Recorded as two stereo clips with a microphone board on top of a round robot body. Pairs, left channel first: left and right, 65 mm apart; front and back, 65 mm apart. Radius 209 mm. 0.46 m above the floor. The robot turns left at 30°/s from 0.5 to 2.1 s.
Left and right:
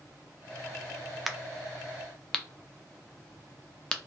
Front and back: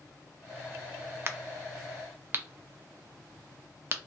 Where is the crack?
175° right, 0.6 m; by 4.0 s 160° left, 0.6 m.